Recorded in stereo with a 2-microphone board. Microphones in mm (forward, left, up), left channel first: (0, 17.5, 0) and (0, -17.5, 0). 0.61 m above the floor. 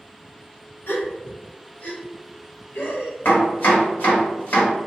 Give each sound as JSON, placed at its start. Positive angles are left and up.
{"t": 0.9, "sound": "a gasp", "side_deg": 60, "distance_m": 0.7}
{"t": 3.2, "sound": "chopping", "side_deg": 75, "distance_m": 1.7}